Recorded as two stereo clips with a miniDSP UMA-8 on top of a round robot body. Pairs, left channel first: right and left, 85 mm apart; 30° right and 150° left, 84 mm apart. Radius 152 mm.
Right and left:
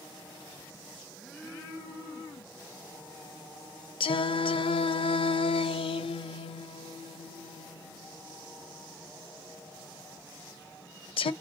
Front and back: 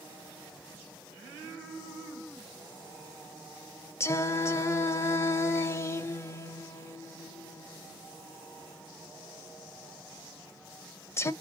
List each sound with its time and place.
4.0 s singing: 90° right, 0.5 m